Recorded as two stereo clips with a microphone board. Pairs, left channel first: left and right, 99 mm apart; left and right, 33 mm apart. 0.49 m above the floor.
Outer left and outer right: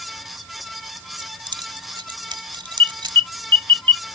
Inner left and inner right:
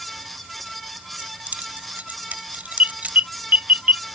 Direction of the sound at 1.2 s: 55° right (ahead or behind).